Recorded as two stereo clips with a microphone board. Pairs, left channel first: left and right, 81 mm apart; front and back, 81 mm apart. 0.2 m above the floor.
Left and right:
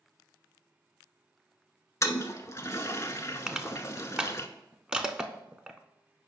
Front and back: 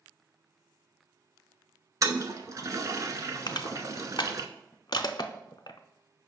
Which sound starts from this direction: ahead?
Crushing, at 3.5 s.